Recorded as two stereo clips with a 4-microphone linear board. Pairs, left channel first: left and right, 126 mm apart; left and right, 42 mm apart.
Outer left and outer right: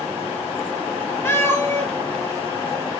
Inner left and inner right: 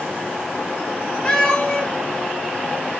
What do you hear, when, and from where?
1.2 s a cat meowing: 20° left (ahead or behind), 0.7 m